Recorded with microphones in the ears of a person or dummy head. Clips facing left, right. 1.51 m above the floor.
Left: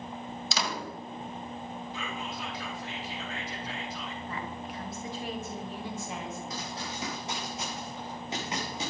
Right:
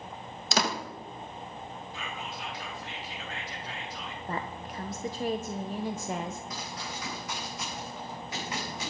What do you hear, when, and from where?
0.5 s a door slam: 50° right (ahead or behind), 1.3 m
1.9 s whispering: 85° left, 4 m
4.3 s a woman speaking: 40° right (ahead or behind), 0.9 m
6.5 s running footsteps: 30° left (ahead or behind), 5 m; by 8.9 s 25° left (ahead or behind), 6.5 m